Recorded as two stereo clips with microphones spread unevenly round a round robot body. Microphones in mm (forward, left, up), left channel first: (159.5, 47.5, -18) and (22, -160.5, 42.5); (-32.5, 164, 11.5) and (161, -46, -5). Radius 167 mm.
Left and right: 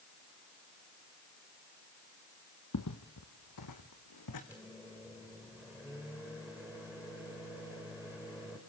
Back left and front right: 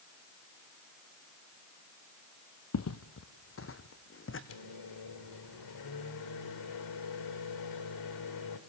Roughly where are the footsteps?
Left.